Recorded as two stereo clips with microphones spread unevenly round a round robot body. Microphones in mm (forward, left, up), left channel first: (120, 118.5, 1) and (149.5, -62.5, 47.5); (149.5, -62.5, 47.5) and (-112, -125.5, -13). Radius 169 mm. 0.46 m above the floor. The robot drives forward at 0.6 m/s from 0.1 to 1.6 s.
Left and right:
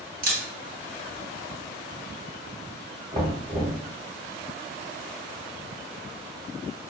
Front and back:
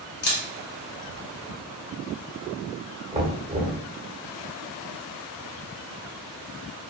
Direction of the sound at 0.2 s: 40° right.